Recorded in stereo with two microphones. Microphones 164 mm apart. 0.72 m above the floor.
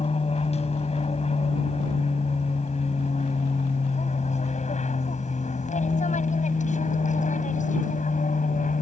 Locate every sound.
0.0 s an aircraft: 40° left (ahead or behind); by 8.8 s 50° left (ahead or behind)